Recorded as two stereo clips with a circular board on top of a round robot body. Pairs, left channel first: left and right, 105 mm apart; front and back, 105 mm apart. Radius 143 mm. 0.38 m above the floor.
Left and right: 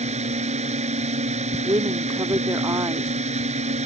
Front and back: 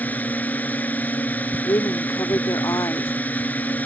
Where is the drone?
75° right.